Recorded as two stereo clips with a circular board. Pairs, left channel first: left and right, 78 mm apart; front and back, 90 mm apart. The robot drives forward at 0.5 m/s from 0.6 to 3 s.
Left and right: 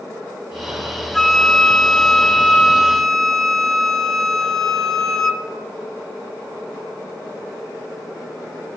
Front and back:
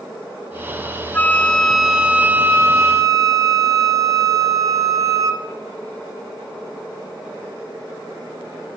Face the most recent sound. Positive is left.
turn(degrees=170)